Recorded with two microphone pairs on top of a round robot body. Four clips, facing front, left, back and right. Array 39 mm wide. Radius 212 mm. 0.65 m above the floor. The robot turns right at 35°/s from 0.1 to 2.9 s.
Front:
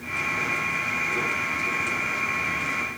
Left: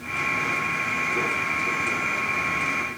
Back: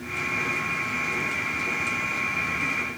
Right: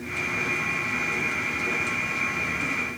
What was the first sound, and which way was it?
Only background noise.